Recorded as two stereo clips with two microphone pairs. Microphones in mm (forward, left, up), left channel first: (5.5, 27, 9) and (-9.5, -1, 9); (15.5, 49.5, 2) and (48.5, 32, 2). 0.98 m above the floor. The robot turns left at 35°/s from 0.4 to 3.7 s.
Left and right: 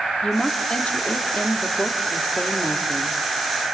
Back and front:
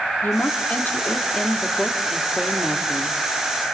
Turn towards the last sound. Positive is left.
turn(degrees=10)